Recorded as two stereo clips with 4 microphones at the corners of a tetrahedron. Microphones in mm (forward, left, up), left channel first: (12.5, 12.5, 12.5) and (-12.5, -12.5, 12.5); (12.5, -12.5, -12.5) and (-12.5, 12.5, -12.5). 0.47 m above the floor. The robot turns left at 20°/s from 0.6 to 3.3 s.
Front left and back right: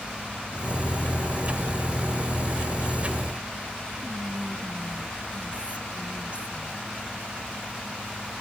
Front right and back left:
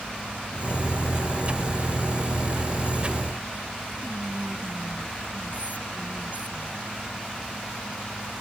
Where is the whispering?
175° left.